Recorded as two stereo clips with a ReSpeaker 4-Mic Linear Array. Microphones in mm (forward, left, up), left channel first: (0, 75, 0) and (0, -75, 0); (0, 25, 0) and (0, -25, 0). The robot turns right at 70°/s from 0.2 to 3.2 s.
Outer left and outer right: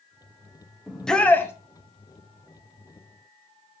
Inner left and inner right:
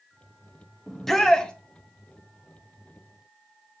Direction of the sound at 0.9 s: 5° right (ahead or behind).